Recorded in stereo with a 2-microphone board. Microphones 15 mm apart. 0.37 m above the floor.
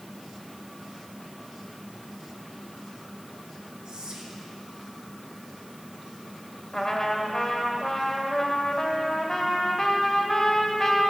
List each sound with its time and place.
3.9 s whispering: 70° right (ahead or behind), 3 m
6.7 s a trumpet: 30° left (ahead or behind), 1.6 m